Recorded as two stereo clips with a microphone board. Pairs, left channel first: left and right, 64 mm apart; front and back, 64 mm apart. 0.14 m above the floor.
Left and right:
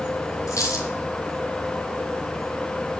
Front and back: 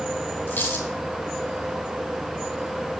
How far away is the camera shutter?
No camera shutter in this recording.